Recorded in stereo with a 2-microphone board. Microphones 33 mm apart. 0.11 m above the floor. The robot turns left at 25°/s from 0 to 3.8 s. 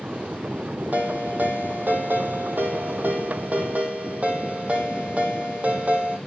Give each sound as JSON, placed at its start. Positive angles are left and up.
{"t": 0.9, "sound": "a ringtone", "azimuth_deg": -60, "distance_m": 2.0}